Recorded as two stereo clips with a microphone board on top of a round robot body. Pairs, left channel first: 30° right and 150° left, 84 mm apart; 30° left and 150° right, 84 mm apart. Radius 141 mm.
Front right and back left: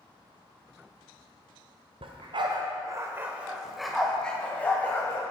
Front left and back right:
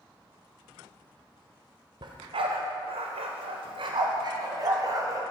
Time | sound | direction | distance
2.0 | a dog barking | 170° left | 1.1 m